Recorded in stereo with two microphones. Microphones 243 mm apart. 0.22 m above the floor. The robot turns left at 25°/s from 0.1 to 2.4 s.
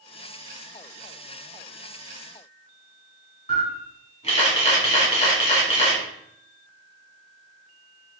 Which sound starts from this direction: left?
A camera shutter, at 3.5 s.